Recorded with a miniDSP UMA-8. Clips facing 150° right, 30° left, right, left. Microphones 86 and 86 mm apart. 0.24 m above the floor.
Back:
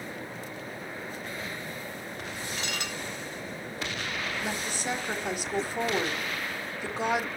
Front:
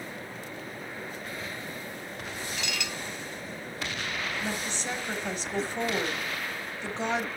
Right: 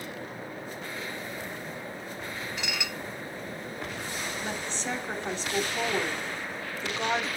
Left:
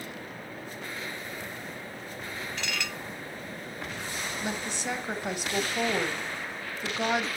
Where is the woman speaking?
150° left, 1.3 m.